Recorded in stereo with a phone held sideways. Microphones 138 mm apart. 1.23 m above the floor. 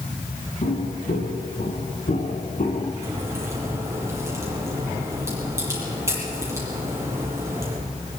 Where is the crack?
20° right (ahead or behind), 8.5 m.